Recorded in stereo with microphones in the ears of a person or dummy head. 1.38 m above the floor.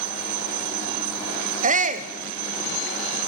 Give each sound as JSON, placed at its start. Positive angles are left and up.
{"t": 1.6, "sound": "a shout", "side_deg": -45, "distance_m": 0.8}